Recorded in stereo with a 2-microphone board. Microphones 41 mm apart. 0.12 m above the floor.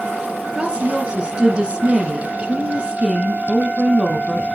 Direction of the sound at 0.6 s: 25° right (ahead or behind).